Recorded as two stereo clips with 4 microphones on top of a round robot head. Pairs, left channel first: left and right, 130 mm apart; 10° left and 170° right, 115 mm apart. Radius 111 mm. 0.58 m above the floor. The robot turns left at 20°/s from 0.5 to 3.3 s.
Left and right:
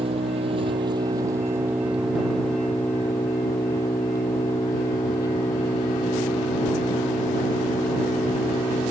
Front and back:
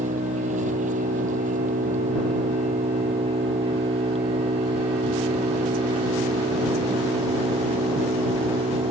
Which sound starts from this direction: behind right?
An engine running, at 0.0 s.